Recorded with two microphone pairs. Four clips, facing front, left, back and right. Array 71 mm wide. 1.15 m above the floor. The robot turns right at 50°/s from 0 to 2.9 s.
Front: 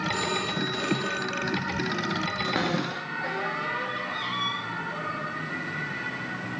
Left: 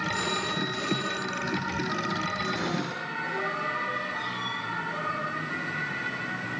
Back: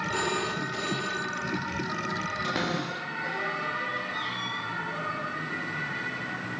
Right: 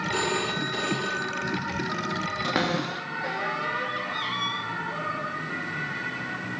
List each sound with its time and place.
0.1 s a phone ringing: 110° right, 4 m; by 1.6 s 35° right, 4 m
2.4 s a cupboard door: 70° right, 3 m; by 4.6 s 50° right, 3 m